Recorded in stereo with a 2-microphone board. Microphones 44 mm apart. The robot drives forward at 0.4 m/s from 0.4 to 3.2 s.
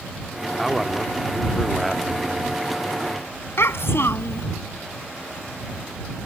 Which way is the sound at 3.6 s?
70° left (ahead or behind).